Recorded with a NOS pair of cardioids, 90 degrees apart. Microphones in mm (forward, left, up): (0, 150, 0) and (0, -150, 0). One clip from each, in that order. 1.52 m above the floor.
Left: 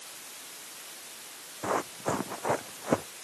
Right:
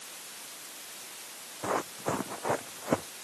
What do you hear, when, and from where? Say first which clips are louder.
1.6 s running footsteps: left 1 dB; 10° left; by 3.1 s 15° left